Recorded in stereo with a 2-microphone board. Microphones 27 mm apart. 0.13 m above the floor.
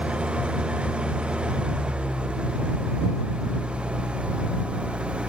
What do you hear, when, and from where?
0.0 s an engine running: 40° right (ahead or behind)